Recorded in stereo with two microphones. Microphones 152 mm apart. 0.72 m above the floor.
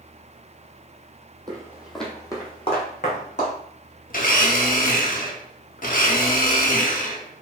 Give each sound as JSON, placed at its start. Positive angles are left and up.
{"t": 1.5, "sound": "footsteps", "side_deg": -25, "distance_m": 1.0}
{"t": 4.1, "sound": "a blender", "side_deg": 60, "distance_m": 0.7}